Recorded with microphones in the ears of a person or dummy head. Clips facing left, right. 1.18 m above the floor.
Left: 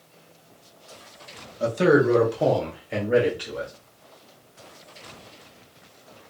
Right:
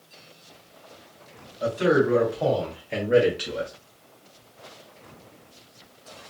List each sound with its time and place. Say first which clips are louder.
1.6 s a man speaking: left 2 dB; 60° left (ahead or behind), 1.1 m; by 3.7 s 40° right (ahead or behind), 0.8 m